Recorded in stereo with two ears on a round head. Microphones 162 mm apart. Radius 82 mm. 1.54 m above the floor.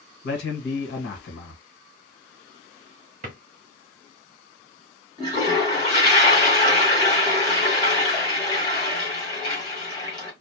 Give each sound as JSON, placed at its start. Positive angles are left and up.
{"t": 0.2, "sound": "a man speaking", "side_deg": 65, "distance_m": 1.5}
{"t": 3.2, "sound": "a drawer", "side_deg": -45, "distance_m": 1.2}
{"t": 5.2, "sound": "a toilet flushing", "side_deg": 20, "distance_m": 1.7}